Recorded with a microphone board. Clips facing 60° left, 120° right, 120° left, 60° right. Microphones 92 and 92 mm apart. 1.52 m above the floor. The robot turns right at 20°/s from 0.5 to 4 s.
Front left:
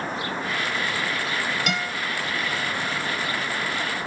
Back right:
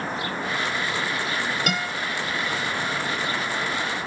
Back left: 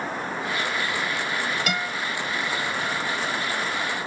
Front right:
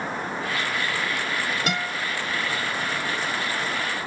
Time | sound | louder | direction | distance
1.7 | a guitar | back right 1 dB, even | 100° right | 1.7 m